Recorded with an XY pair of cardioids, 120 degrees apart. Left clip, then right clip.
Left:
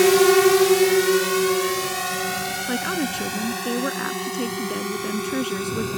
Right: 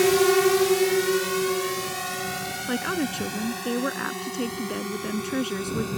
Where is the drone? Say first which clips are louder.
Left 4 dB; 25° left; by 6.0 s 30° left.